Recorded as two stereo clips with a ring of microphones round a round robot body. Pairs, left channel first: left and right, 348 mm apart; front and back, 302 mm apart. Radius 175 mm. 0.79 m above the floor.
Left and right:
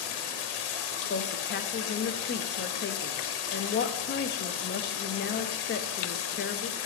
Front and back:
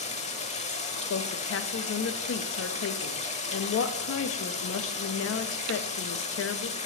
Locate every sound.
0.0 s running water: 70° left, 1.0 m
1.1 s a woman speaking: 35° left, 0.7 m